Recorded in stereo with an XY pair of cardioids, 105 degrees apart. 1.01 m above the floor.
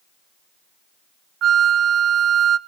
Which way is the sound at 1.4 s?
60° right.